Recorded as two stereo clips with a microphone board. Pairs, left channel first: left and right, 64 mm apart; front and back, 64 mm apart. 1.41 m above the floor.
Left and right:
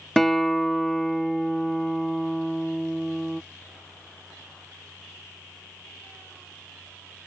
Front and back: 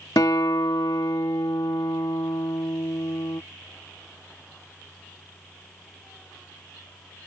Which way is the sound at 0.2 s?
5° left.